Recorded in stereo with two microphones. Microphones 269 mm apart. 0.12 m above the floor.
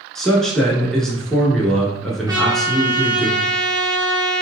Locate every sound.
0.1 s a man speaking: centre (ahead or behind), 1.3 m
2.3 s a trumpet: 15° right (ahead or behind), 1.5 m